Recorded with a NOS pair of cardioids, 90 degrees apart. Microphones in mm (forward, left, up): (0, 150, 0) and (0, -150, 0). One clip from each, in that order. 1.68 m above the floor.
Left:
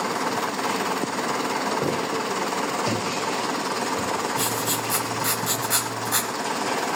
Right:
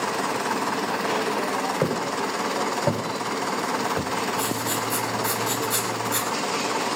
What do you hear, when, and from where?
1.8 s footsteps: 60° right, 6 m; by 4.1 s 65° right, 4 m
4.4 s writing: 30° left, 5 m